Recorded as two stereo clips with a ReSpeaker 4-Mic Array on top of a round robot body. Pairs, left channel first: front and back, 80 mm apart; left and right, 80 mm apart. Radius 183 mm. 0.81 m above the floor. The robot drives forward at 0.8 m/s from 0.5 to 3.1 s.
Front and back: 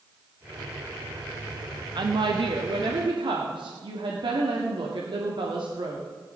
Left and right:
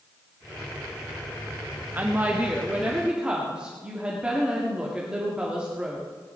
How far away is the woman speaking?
About 1.2 m.